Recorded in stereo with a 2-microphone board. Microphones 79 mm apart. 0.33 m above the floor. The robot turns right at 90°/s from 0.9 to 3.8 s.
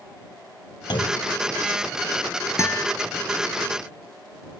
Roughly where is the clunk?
Left.